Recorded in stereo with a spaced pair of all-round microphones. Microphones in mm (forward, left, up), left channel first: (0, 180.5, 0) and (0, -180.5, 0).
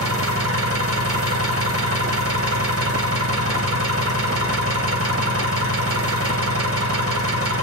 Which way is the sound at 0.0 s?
40° right (ahead or behind).